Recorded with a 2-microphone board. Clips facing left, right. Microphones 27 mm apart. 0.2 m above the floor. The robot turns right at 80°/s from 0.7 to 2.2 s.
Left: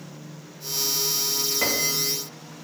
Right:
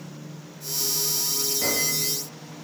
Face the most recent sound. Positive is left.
turn(degrees=135)